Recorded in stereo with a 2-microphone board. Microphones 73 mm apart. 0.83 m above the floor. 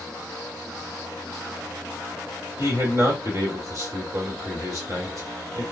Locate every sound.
2.6 s a man speaking: 45° right (ahead or behind), 1.7 m